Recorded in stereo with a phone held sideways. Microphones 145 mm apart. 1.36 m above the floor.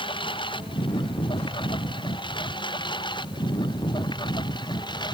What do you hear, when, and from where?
0.0 s a lawn mower: 35° left (ahead or behind)